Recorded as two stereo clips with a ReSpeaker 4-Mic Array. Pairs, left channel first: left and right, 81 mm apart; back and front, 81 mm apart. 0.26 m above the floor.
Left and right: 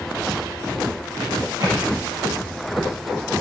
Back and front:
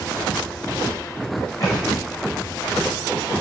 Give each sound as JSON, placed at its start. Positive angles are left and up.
{"t": 1.6, "sound": "a thud", "azimuth_deg": -130, "distance_m": 5.5}